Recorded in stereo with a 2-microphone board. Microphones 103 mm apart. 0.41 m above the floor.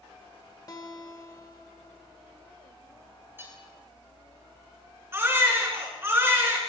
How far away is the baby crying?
About 4 m.